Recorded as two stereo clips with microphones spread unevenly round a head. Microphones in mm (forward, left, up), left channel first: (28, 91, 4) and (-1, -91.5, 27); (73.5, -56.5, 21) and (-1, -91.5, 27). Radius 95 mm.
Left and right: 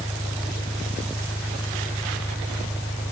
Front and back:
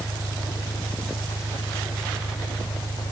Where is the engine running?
Straight ahead.